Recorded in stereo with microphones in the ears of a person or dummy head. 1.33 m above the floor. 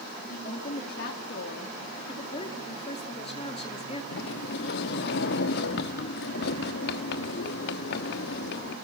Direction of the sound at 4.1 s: 60° left (ahead or behind).